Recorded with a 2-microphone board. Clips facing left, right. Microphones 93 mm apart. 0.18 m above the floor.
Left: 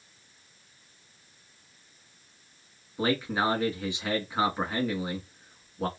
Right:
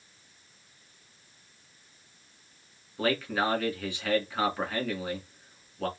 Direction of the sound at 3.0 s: 20° left (ahead or behind).